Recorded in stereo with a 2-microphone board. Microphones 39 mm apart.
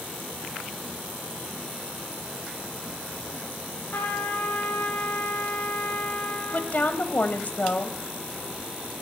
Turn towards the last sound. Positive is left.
turn(degrees=50)  # may be behind; listen again after turning